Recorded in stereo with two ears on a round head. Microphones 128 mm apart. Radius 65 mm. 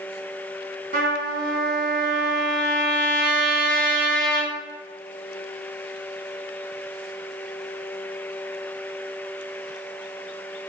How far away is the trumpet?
About 3.5 m.